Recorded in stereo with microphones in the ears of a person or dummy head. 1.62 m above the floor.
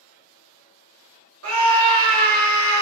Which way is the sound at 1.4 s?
85° right.